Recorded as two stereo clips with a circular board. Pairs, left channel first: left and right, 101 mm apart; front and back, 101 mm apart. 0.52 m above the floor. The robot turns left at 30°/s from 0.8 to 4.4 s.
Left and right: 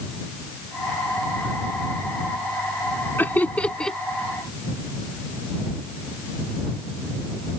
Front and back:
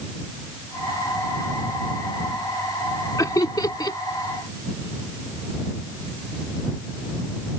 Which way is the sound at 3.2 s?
30° left.